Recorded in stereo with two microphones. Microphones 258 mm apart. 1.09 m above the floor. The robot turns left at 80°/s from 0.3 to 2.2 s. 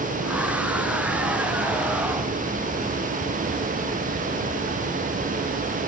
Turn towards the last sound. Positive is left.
No sound to turn to.